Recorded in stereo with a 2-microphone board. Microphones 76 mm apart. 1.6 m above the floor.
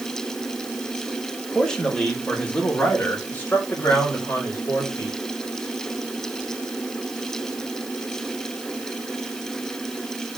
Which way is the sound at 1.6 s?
10° left (ahead or behind).